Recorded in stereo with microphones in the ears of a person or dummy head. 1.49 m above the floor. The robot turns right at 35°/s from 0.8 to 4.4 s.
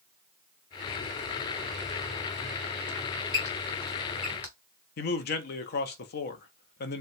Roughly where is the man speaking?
Left.